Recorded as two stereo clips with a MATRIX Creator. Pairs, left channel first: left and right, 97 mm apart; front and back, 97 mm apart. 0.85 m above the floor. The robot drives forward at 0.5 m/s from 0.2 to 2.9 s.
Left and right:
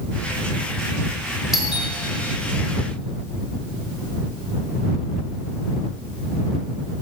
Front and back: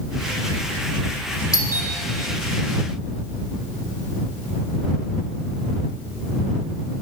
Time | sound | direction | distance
1.5 | a doorbell | 5° right | 1.1 m